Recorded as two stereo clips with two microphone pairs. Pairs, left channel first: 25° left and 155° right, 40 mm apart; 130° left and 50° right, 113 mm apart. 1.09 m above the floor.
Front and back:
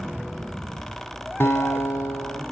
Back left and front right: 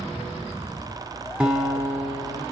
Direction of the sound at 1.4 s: 30° left.